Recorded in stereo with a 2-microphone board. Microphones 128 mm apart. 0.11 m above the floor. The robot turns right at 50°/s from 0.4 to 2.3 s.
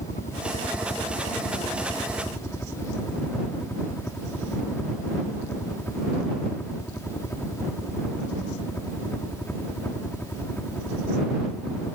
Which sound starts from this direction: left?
A helicopter, at 0.0 s.